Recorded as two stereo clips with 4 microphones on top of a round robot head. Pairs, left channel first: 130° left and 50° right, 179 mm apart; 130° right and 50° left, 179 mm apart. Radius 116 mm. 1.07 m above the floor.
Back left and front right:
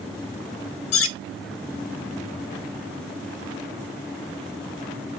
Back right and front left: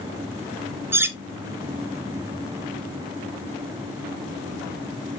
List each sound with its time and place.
0.9 s cutlery clinking: 125° left, 0.5 m